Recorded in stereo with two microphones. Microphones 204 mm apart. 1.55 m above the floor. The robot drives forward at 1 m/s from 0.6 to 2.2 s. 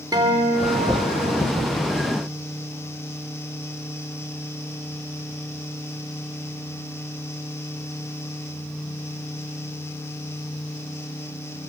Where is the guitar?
20° right (ahead or behind), 3 m; by 1.4 s 15° right (ahead or behind), 4 m.